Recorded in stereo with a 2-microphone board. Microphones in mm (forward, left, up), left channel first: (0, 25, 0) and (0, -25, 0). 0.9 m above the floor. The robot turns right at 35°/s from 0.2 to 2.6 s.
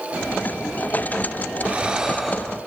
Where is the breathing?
30° right, 0.9 m; by 2.6 s 5° left, 0.9 m.